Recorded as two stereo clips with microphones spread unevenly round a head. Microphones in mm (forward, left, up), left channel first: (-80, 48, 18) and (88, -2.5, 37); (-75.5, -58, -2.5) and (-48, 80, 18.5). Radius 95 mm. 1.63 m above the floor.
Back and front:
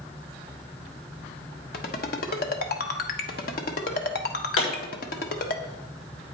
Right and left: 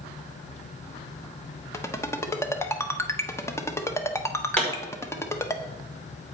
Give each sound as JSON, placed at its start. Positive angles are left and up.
{"t": 1.7, "sound": "a ringtone", "azimuth_deg": -175, "distance_m": 1.0}
{"t": 4.6, "sound": "a pop", "azimuth_deg": 175, "distance_m": 6.0}